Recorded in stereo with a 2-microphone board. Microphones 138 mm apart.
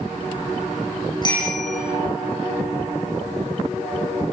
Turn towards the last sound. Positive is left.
turn(degrees=30)  # may be behind; listen again after turning